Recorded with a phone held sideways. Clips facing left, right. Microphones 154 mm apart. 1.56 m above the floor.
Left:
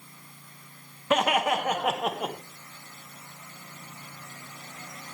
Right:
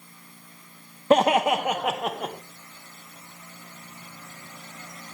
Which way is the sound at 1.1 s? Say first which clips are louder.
Right 5 dB; 35° right (ahead or behind).